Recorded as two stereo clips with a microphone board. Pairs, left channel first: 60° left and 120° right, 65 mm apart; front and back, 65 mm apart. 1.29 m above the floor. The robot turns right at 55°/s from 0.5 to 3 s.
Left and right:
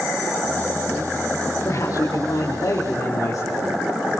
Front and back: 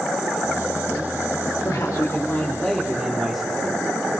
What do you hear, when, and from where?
1.6 s a man speaking: 15° left, 3.5 m; by 3.7 s 90° left, 3.5 m